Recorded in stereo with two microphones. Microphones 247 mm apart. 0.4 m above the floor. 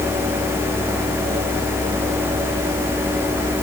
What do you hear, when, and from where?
Only background noise.